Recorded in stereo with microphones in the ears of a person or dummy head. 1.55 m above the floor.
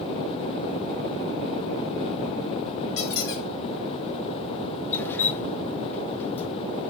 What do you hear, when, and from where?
3.0 s a squeak: 60° left (ahead or behind), 1.1 m
4.9 s dripping: 15° left (ahead or behind), 0.5 m